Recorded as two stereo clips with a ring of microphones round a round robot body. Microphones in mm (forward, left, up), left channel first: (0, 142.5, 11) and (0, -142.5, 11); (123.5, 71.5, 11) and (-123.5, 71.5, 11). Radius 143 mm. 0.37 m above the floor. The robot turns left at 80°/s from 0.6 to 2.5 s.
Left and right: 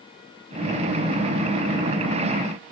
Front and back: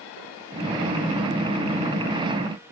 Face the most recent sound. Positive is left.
No sound to turn to.